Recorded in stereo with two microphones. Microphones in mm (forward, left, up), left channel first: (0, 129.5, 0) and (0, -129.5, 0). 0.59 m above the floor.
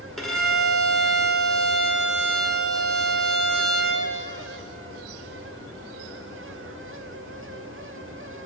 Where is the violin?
Centre (ahead or behind), 1.2 m.